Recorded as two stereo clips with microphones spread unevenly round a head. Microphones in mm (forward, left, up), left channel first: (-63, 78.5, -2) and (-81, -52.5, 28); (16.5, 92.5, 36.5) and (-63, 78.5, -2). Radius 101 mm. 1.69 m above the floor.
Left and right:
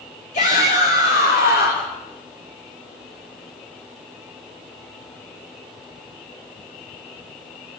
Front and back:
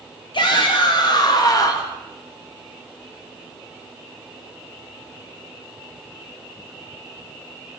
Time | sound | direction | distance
0.3 | a shout | 25° left | 3 m